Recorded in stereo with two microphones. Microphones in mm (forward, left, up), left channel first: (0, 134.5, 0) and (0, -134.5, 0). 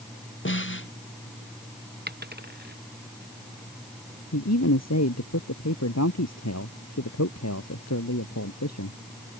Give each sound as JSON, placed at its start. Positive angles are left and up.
{"t": 0.5, "sound": "a snare drum", "side_deg": 45}
{"t": 2.1, "sound": "a dropped coin", "side_deg": -35}
{"t": 4.3, "sound": "a man speaking", "side_deg": 75}